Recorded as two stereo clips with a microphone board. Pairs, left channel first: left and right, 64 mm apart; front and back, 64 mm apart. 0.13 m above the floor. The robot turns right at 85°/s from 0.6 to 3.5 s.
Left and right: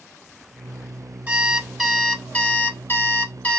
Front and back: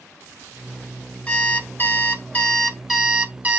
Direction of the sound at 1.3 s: 50° right.